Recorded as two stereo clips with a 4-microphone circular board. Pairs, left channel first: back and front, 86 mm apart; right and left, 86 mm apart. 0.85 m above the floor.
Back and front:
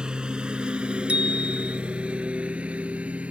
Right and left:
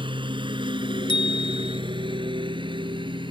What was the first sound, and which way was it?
A lawn mower, 80° left.